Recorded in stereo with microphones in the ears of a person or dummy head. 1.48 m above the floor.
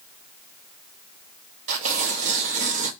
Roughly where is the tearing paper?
Right.